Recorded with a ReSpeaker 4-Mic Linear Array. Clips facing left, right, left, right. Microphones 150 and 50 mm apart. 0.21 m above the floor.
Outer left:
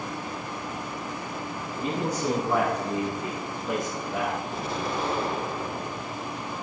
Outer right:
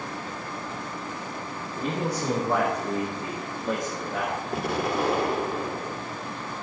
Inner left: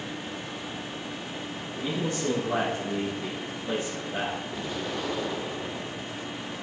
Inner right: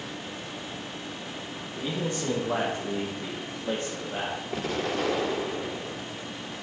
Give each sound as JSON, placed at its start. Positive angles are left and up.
{"t": 1.8, "sound": "a man speaking", "side_deg": -30, "distance_m": 7.5}
{"t": 4.5, "sound": "an explosion", "side_deg": -70, "distance_m": 1.6}